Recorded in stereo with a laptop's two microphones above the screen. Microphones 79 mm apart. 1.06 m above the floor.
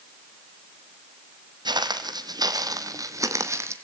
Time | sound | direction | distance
1.6 | footsteps | 65° right (ahead or behind) | 2.5 m